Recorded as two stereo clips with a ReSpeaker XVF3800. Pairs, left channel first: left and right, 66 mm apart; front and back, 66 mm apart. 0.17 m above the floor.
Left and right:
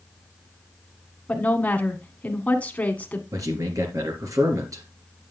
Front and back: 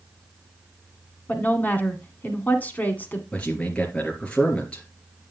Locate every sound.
1.3 s a woman speaking: 40° left, 1.8 m
3.3 s a man speaking: 70° right, 3.5 m